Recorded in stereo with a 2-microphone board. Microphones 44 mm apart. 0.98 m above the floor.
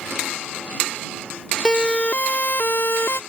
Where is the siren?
20° left (ahead or behind); by 3.2 s 75° left (ahead or behind).